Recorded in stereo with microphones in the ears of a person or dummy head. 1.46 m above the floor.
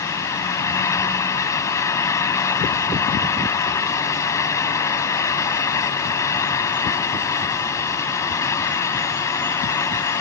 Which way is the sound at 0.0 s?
20° left (ahead or behind).